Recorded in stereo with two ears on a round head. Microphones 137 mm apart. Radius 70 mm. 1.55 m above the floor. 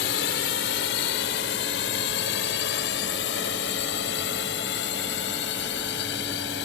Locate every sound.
0.0 s a drone: 85° left